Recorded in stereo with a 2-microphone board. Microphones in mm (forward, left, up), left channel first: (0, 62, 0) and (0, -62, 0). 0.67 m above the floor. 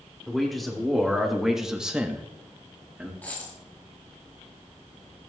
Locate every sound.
0.3 s a man speaking: centre (ahead or behind), 2 m; by 3.1 s 10° right (ahead or behind), 1.3 m
3.2 s a dropped coin: 15° left (ahead or behind), 6 m